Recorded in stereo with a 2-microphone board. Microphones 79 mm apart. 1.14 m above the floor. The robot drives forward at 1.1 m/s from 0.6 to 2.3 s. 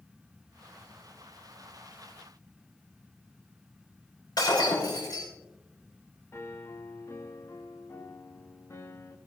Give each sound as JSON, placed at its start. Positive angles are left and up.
{"t": 4.4, "sound": "breaking glass", "side_deg": 60, "distance_m": 6.5}
{"t": 6.3, "sound": "a piano", "side_deg": 35, "distance_m": 1.0}